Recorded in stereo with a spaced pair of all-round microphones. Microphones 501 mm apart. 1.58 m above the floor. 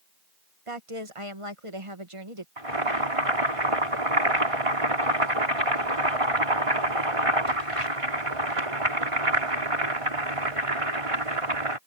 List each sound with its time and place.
0.7 s a woman speaking: 75° right (ahead or behind)
2.6 s boiling: 80° right